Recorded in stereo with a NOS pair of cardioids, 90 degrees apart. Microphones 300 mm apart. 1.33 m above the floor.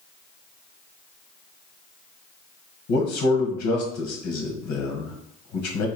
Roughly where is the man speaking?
Left.